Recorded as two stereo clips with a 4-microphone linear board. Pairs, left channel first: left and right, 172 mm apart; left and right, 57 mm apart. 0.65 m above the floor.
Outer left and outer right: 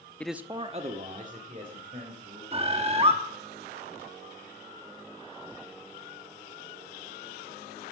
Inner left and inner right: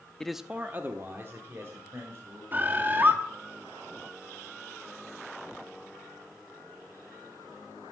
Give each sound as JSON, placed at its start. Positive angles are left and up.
{"t": 0.2, "sound": "a man speaking", "side_deg": 10, "distance_m": 0.7}
{"t": 2.5, "sound": "a bird", "side_deg": -35, "distance_m": 1.2}